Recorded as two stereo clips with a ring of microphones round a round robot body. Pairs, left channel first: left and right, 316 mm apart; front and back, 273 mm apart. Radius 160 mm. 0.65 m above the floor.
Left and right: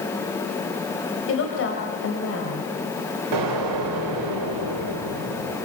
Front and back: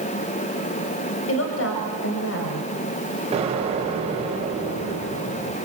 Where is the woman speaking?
40° left, 3 m.